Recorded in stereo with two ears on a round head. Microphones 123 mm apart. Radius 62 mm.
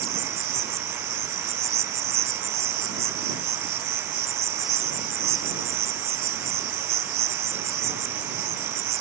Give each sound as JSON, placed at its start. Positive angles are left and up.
{"t": 0.0, "sound": "an insect", "side_deg": -45}